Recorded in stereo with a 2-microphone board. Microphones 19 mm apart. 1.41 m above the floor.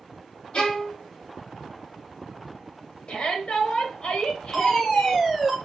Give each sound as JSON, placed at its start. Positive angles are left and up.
{"t": 0.5, "sound": "a violin", "side_deg": 50, "distance_m": 1.3}
{"t": 3.1, "sound": "a shout", "side_deg": 60, "distance_m": 1.9}
{"t": 4.5, "sound": "a fire alarm", "side_deg": 0, "distance_m": 1.2}